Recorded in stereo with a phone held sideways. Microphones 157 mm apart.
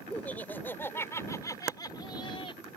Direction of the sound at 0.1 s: 10° left (ahead or behind).